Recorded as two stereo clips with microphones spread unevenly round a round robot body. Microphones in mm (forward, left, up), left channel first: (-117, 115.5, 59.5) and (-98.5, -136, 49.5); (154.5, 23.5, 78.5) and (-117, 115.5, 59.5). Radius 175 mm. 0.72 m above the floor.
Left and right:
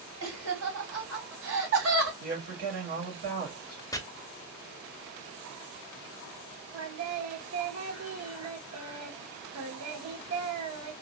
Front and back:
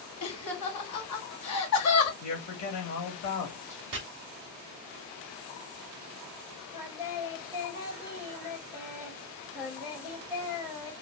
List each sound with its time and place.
0.2 s laughter: 50° right, 2 m
2.2 s a woman speaking: 35° right, 1.9 m
3.9 s chopping: 170° left, 1.0 m
6.7 s singing: 100° right, 1.4 m